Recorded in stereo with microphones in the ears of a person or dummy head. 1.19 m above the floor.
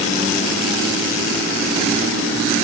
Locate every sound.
Only background noise.